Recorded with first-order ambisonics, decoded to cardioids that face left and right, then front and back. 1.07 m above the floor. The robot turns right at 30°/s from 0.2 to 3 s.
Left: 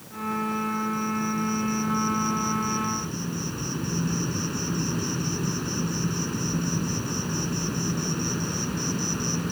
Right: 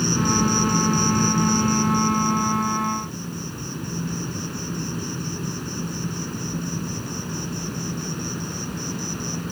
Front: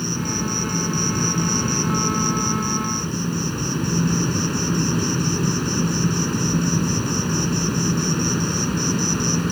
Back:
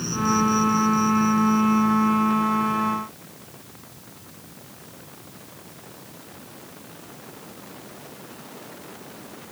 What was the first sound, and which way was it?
An insect, 80° right.